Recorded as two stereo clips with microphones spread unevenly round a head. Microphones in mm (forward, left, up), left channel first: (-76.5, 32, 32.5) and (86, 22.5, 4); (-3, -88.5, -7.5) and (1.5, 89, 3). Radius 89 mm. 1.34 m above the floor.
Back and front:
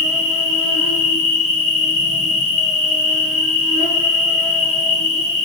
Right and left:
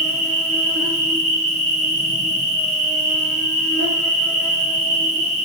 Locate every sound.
0.0 s an insect: 145° left, 1.6 m